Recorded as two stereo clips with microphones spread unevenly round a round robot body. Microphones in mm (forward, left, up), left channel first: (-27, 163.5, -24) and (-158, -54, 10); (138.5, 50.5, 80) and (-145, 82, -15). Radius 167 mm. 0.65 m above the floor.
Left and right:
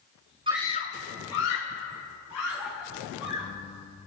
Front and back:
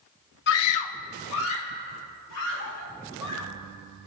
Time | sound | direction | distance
0.5 | a scream | 60° right | 0.5 m